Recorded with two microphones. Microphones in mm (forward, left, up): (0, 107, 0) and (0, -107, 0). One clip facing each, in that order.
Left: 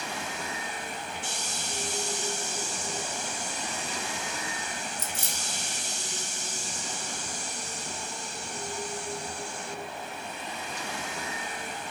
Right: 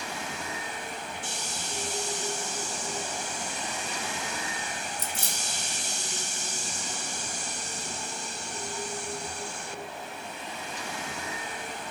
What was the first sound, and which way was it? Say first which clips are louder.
Keys jangling: right 1 dB; 35° right (ahead or behind).